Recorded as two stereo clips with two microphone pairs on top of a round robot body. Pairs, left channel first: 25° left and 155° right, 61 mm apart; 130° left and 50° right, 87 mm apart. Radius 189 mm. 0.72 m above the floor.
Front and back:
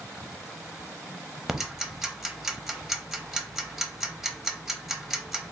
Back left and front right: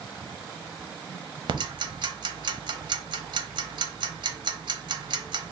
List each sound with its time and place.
1.5 s ticking: 75° right, 0.8 m